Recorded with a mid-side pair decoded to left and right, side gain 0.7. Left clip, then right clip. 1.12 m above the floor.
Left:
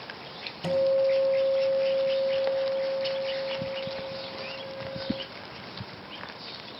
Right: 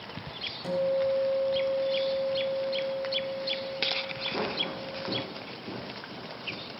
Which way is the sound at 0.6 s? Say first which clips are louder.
Left 4 dB; 35° left.